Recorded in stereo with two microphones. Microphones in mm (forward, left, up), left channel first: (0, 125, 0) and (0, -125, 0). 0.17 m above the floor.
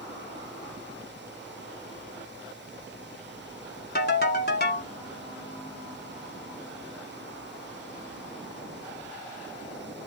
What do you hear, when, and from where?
4.0 s a ringtone: 40° left (ahead or behind), 0.9 m